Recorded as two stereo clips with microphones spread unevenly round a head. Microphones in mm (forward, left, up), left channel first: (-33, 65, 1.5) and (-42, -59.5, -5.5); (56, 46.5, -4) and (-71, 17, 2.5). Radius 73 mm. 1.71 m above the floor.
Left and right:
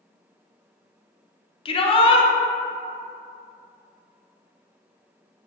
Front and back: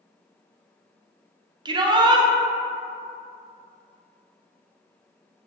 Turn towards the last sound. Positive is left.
turn(degrees=135)